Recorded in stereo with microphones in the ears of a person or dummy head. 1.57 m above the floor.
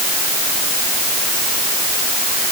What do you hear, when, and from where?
Only background noise.